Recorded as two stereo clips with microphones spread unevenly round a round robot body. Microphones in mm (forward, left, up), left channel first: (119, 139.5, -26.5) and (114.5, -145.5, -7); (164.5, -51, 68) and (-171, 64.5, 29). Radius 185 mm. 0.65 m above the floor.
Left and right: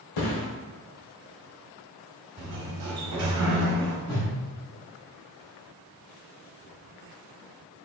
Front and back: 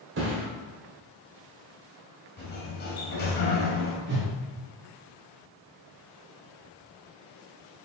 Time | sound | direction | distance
0.2 | a thud | 105° left | 1.0 m
2.4 | a sliding door | 80° right | 1.0 m
4.1 | a whoosh | 110° left | 1.6 m